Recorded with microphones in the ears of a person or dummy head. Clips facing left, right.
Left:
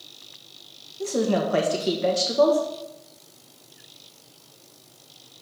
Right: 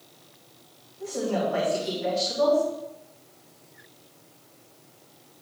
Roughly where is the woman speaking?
Left.